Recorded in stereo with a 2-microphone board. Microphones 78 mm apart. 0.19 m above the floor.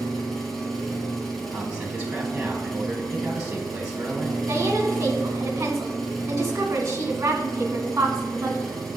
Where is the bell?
No bell in this recording.